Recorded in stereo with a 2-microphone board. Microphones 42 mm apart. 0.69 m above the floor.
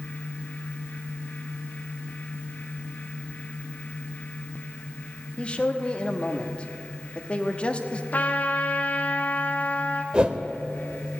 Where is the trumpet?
40° left (ahead or behind), 1.4 m.